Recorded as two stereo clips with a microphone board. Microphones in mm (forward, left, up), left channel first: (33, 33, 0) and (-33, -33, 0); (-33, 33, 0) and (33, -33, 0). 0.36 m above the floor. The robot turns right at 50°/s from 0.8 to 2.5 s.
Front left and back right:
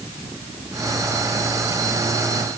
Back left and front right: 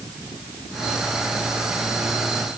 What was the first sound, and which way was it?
Only background noise.